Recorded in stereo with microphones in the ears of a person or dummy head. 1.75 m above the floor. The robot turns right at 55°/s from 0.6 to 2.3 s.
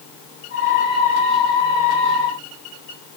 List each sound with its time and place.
Only background noise.